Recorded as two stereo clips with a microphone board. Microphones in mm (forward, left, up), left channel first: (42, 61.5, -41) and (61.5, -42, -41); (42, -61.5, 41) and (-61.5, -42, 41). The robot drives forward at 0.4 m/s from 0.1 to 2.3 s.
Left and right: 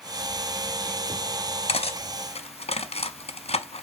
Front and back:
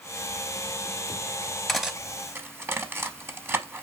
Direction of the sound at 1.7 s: 80° left.